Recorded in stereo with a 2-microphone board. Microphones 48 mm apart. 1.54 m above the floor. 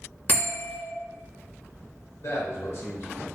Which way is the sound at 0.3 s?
35° left (ahead or behind).